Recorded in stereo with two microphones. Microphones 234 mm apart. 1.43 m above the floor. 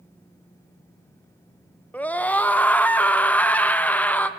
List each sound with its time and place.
1.9 s a scream: 5° left (ahead or behind), 0.7 m